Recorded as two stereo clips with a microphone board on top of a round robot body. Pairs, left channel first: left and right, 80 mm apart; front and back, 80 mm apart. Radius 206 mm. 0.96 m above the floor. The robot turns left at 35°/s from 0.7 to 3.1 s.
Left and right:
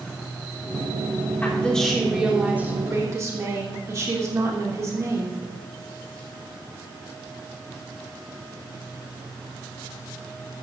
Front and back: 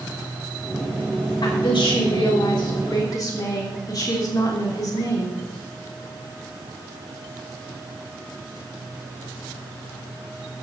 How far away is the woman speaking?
About 3 m.